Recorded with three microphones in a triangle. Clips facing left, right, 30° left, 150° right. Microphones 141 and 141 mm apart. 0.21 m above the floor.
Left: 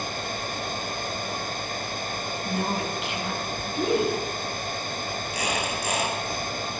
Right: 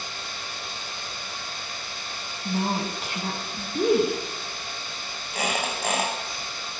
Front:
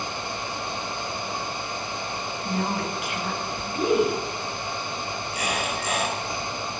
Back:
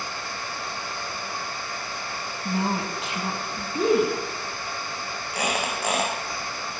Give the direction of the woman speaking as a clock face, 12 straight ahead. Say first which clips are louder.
Right 2 dB, back 1 dB; 4 o'clock.